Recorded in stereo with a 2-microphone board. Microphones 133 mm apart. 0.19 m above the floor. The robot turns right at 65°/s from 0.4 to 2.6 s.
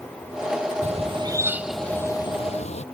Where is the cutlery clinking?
I don't hear cutlery clinking.